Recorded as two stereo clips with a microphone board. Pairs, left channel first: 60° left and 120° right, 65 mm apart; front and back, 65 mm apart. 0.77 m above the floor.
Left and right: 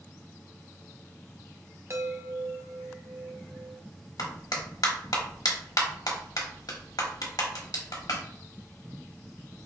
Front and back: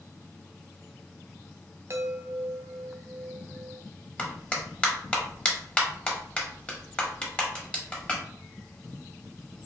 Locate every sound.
1.9 s a chime: 150° right, 0.6 m
4.2 s a clap: 75° left, 1.1 m